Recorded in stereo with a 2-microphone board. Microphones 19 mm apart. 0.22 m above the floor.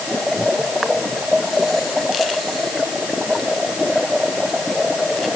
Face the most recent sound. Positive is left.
No sound to turn to.